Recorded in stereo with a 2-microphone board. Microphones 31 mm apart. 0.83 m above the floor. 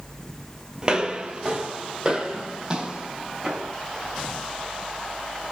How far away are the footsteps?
About 0.9 m.